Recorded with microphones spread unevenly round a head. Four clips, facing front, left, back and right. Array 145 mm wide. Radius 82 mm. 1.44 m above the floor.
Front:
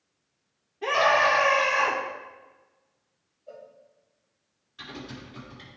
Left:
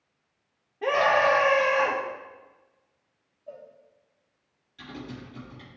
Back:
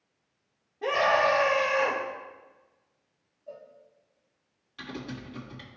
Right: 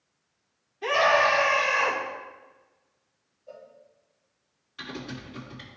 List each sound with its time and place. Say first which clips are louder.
0.8 s a scream: even, front 2 dB; 115° left, 2 m
3.5 s a cowbell: left 2 dB, even; 120° left, 3 m
4.8 s typing on a keyboard: right 2 dB, back 2 dB; 160° right, 2 m